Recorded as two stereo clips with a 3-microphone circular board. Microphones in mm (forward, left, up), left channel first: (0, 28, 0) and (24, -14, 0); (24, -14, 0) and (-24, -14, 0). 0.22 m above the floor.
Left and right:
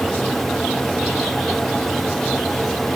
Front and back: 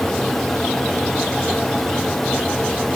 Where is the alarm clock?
No alarm clock in this recording.